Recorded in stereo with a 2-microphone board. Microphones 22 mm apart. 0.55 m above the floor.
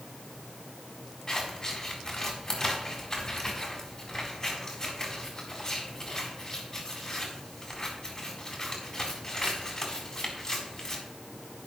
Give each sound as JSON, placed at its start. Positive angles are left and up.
{"t": 1.3, "sound": "scissors", "side_deg": 30, "distance_m": 4.0}